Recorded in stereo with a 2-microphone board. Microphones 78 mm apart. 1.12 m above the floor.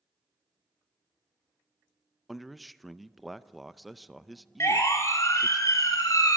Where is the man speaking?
Centre (ahead or behind), 0.6 m.